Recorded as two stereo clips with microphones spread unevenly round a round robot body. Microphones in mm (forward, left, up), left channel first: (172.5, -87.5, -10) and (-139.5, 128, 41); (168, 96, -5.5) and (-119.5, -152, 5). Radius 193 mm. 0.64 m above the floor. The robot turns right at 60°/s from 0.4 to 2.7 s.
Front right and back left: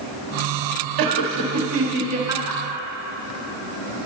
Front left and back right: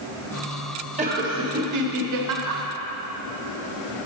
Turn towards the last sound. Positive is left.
turn(degrees=-105)